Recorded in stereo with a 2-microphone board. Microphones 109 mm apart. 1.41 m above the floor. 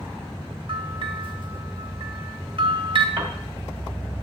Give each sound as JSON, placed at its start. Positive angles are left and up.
{"t": 0.7, "sound": "a bell", "side_deg": -55, "distance_m": 2.0}
{"t": 3.2, "sound": "a piano", "side_deg": -50, "distance_m": 1.9}